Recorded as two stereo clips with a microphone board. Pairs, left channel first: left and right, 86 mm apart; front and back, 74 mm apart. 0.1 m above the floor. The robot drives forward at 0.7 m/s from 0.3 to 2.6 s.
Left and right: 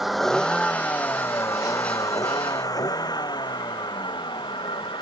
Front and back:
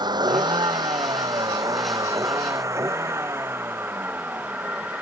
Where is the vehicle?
175° right; by 5.0 s 110° left.